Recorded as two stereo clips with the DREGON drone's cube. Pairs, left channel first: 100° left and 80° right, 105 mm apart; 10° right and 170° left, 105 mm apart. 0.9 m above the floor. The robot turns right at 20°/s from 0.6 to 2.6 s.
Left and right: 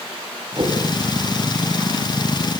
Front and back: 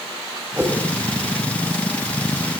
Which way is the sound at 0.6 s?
120° right.